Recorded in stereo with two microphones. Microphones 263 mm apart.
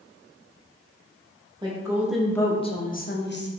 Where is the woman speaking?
15° right (ahead or behind), 0.9 m; by 3.5 s 45° left (ahead or behind), 0.9 m.